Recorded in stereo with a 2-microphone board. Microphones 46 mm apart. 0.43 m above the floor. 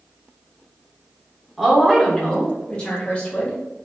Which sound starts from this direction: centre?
A woman speaking, at 1.6 s.